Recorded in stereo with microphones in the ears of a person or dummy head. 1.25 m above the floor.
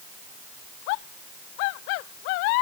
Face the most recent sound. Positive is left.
No sound to turn to.